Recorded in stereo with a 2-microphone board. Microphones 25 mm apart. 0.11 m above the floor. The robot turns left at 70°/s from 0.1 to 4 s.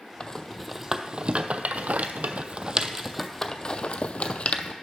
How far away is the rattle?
About 0.5 m.